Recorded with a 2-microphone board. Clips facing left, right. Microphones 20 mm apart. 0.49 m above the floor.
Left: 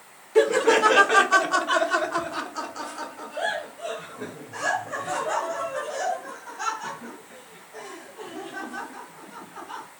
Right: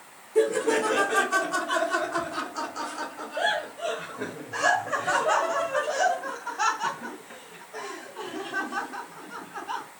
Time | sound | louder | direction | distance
0.3 | laughter | left 4 dB | 45° left (ahead or behind) | 1.1 m